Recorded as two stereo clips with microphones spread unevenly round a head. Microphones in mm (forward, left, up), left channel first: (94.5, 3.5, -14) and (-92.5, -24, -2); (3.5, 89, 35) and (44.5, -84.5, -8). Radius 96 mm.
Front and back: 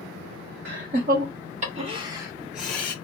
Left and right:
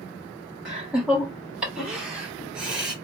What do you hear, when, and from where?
0.7 s laughter: 155° right, 1.2 m; by 3.0 s 40° right, 0.8 m